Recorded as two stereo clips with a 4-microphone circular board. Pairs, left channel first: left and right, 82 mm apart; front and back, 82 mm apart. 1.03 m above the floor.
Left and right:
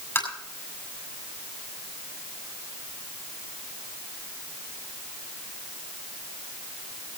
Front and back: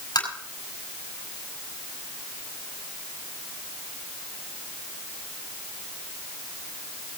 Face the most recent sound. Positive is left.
turn(degrees=30)